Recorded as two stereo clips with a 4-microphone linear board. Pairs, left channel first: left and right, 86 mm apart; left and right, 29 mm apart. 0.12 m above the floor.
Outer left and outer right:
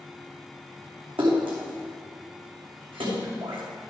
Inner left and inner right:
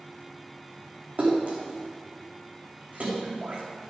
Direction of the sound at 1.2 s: 80° right.